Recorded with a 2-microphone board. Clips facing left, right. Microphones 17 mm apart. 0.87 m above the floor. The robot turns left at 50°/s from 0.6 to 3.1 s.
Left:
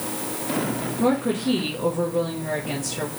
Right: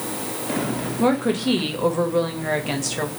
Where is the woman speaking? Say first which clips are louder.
Right 2 dB; 20° right, 0.9 m; by 3.1 s 125° right, 0.9 m.